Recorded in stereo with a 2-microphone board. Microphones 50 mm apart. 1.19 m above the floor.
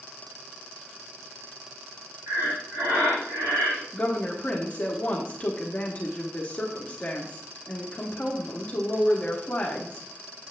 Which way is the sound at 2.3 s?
70° right (ahead or behind).